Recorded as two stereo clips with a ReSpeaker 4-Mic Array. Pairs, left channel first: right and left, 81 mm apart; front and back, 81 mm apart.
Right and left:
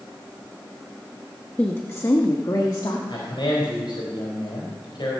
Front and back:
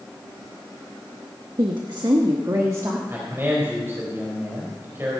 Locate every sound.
1.6 s a woman speaking: 160° right, 1.0 m; by 3.0 s 125° right, 1.8 m
3.1 s a man speaking: 120° right, 4 m